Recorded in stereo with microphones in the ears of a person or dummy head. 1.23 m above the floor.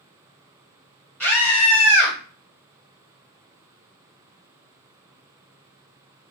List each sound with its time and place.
1.2 s a scream: 5° left (ahead or behind), 1.4 m